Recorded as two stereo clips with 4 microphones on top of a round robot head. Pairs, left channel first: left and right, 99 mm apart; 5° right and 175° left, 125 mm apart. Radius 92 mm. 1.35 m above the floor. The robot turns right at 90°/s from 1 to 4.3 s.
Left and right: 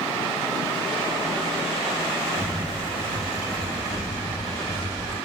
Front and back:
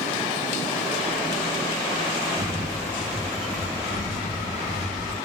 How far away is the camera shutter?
About 1.0 m.